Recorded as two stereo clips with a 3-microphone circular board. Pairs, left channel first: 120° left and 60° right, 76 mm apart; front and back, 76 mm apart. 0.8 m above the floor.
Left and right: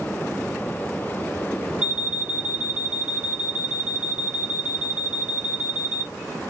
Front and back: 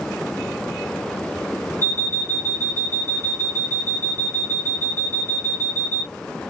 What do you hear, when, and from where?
1.8 s an alarm clock: 135° right, 0.7 m